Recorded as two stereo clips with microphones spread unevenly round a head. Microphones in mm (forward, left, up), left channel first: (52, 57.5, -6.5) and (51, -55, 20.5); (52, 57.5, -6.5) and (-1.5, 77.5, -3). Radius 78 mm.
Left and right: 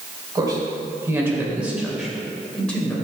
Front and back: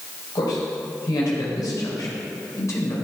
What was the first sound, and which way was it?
A man speaking, 35° right.